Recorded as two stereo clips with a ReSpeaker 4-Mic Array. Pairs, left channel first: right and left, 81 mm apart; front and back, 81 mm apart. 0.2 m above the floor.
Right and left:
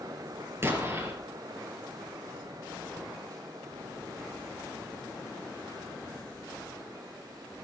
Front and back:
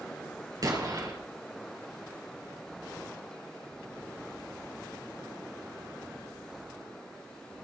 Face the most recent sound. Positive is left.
turn(degrees=145)